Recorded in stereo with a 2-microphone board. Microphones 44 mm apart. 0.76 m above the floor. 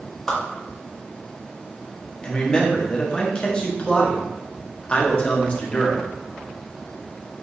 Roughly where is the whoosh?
Centre.